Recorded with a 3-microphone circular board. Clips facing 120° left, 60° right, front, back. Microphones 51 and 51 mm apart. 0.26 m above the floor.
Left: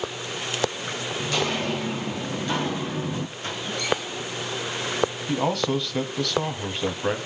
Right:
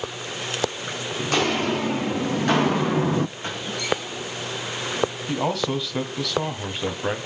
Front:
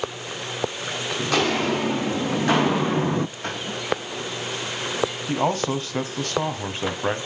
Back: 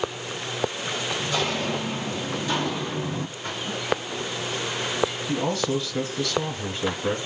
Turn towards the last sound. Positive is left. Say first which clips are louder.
# even, front 2 dB
turn(degrees=30)